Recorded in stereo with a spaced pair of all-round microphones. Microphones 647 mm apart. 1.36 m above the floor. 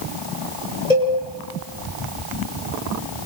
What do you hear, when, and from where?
0.9 s a cowbell: 85° left, 8 m